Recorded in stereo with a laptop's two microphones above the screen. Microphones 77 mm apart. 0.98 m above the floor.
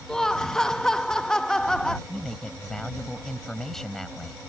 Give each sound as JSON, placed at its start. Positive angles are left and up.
{"t": 0.1, "sound": "laughter", "side_deg": 10}
{"t": 2.1, "sound": "a man speaking", "side_deg": 5}